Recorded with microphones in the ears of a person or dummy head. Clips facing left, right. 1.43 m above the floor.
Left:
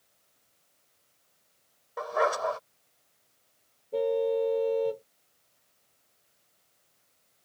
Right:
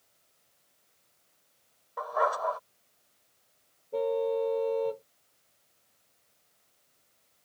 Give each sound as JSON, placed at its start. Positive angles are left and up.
{"t": 2.0, "sound": "a dog barking", "side_deg": 35}
{"t": 3.9, "sound": "a car horn", "side_deg": 10}